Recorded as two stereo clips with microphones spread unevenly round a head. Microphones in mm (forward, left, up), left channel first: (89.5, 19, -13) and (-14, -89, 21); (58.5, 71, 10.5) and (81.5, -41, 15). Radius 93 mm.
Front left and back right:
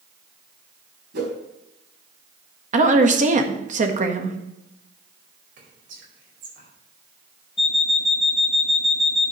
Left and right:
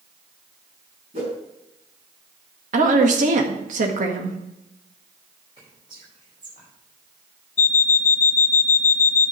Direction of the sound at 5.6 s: 145° right.